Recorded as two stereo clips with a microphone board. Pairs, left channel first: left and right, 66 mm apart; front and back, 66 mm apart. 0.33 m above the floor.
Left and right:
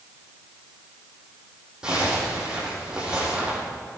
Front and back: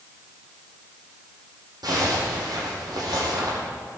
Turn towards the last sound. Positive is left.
turn(degrees=-165)